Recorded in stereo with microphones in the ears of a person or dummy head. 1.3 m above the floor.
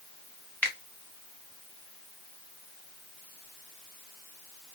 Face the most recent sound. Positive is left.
turn(degrees=10)  # may be behind; listen again after turning